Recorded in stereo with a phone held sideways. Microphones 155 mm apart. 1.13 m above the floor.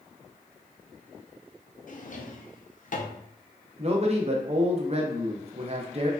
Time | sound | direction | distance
1.9 | a drawer | 55° left (ahead or behind) | 0.5 m
3.8 | a man speaking | 40° right (ahead or behind) | 0.6 m